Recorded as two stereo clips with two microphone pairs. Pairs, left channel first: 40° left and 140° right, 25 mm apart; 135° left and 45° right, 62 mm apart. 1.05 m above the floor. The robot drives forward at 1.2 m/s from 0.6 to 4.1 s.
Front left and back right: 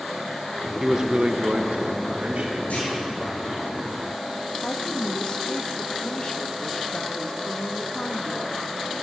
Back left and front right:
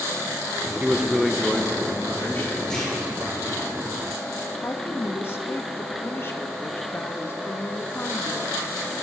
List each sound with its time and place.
0.8 s a man speaking: 75° right, 0.8 m; by 2.6 s 170° right, 2 m
2.7 s a clunk: 60° left, 7 m
4.6 s a woman speaking: 90° left, 1.1 m